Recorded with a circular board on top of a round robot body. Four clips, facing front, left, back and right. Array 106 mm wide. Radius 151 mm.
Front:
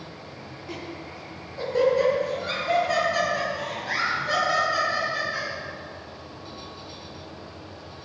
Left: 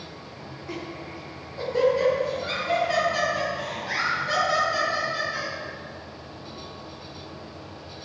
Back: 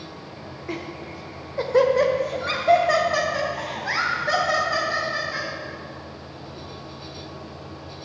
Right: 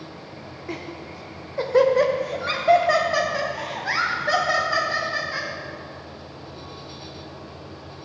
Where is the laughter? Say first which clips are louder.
Right 1 dB, back 4 dB; 145° right, 1.8 m; by 5.5 s 115° right, 5 m.